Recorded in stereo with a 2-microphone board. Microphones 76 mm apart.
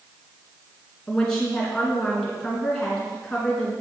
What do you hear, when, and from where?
1.1 s a woman speaking: 10° left (ahead or behind), 3 m